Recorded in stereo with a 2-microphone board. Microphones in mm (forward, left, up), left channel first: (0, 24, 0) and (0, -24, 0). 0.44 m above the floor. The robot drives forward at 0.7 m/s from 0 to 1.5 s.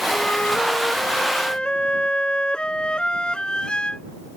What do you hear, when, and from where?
0.1 s a flute: 35° left (ahead or behind); by 4.0 s 20° left (ahead or behind)